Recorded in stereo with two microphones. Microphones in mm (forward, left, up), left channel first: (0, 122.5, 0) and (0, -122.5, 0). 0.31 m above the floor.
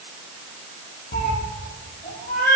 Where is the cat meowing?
35° left (ahead or behind), 0.5 m.